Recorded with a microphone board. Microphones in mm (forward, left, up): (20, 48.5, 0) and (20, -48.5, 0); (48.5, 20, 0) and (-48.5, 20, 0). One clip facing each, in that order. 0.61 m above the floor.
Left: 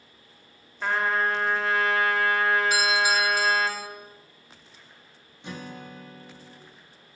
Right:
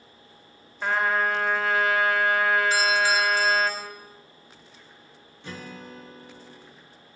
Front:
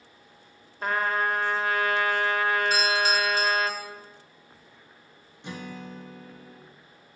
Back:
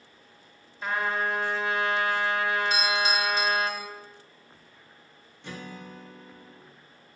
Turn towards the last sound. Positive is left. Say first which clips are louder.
# left 1 dB, front 2 dB
turn(degrees=45)